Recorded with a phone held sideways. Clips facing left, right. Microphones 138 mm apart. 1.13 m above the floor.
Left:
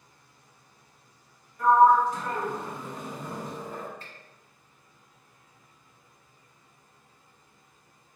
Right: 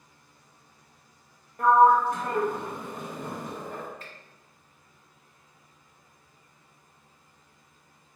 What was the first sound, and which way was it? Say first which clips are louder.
A sliding door: even; 60° right (ahead or behind).